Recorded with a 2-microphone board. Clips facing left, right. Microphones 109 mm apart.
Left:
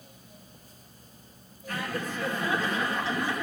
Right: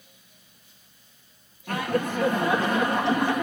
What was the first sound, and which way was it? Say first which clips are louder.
Laughter: right 7 dB; 65° right (ahead or behind).